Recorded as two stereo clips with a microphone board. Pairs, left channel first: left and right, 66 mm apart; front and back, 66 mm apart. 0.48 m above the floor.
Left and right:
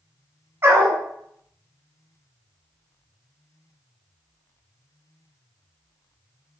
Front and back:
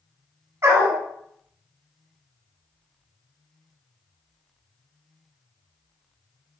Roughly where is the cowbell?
I don't hear a cowbell.